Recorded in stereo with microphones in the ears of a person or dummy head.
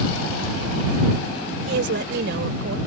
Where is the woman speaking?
75° right (ahead or behind); by 2.8 s 70° right (ahead or behind).